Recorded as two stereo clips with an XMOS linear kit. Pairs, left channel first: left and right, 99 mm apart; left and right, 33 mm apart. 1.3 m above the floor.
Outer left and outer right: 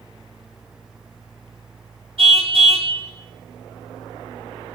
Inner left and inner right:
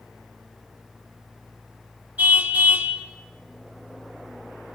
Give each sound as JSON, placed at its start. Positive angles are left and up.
{"t": 2.2, "sound": "a car horn", "side_deg": -70, "distance_m": 2.5}